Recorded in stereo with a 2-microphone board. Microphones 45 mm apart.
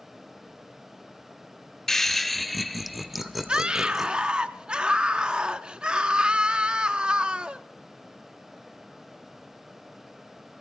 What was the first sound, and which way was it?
Laughter, 10° left (ahead or behind).